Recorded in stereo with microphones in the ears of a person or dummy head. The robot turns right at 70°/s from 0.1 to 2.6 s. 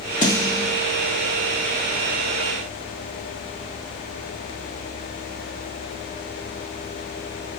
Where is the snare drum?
15° left (ahead or behind), 0.6 m; by 0.7 s 5° left (ahead or behind), 0.6 m.